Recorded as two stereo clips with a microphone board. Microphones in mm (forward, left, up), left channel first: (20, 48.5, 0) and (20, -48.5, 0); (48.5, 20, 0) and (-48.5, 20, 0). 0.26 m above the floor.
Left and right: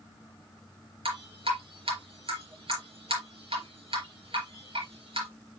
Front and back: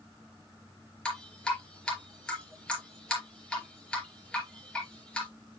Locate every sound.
1.1 s dripping: 80° right, 4.5 m